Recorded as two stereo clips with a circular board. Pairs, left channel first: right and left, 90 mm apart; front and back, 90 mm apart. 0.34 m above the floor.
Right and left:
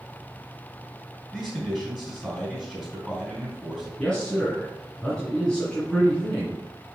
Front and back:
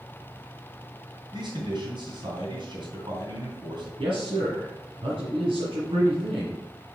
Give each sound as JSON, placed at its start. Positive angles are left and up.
{"t": 1.3, "sound": "a man speaking", "azimuth_deg": -175, "distance_m": 2.5}
{"t": 4.0, "sound": "a man speaking", "azimuth_deg": -170, "distance_m": 3.0}